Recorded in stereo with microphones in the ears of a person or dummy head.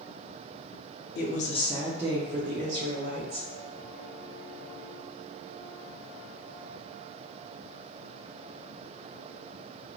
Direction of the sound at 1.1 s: 45° left (ahead or behind).